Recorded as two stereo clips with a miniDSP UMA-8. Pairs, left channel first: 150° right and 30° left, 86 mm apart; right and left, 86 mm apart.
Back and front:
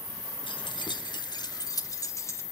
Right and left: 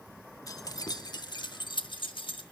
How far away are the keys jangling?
About 1.6 m.